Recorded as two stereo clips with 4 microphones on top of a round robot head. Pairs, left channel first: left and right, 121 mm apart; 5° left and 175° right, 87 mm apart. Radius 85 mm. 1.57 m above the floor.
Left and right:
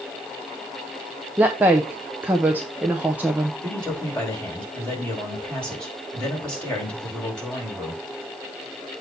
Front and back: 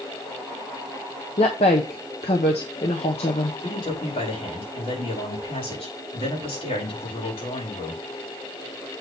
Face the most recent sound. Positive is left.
turn(degrees=10)